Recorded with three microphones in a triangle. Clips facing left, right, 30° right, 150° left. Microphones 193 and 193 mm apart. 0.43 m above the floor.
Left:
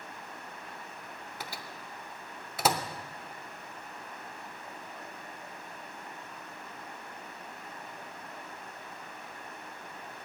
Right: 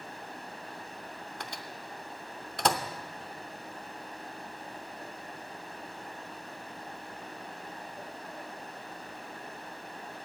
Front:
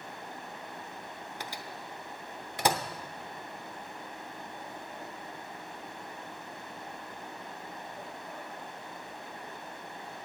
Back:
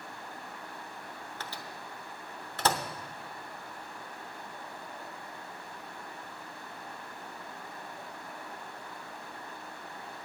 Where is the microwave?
15° left, 0.7 m.